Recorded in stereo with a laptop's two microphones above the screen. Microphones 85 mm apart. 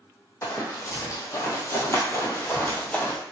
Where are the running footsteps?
35° left (ahead or behind), 1.5 m; by 3.2 s 20° left (ahead or behind), 1.1 m.